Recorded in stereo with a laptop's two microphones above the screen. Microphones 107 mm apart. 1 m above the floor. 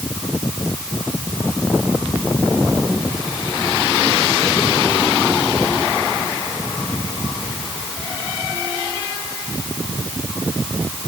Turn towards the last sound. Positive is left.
No sound to turn to.